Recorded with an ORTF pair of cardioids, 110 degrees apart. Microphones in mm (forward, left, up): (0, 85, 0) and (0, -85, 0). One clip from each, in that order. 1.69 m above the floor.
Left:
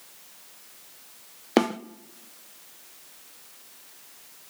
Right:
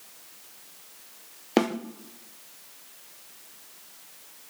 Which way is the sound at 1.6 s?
25° left.